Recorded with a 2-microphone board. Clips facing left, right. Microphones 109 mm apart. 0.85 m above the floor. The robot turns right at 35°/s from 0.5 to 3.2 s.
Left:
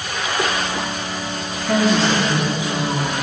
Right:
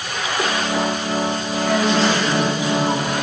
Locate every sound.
1.7 s a woman speaking: 170° left, 1.4 m; by 3.1 s 140° right, 1.4 m